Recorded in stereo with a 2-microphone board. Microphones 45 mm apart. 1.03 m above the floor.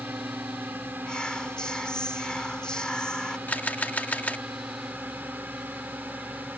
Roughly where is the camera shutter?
Left.